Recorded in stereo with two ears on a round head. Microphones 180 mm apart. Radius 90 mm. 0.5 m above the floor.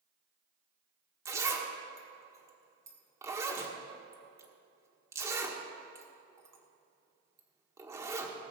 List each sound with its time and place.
1.2 s a zipper: 15° right (ahead or behind), 1.4 m